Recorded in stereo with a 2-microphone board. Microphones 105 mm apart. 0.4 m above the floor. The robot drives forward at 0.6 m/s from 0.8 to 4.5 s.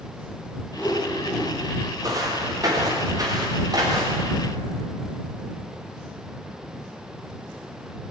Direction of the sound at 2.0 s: 35° right (ahead or behind).